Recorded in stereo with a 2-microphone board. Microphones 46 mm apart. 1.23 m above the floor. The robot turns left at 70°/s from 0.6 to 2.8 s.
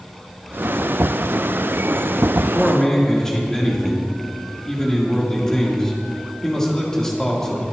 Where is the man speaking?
15° right (ahead or behind), 3 m; by 7.6 s 15° left (ahead or behind), 3 m.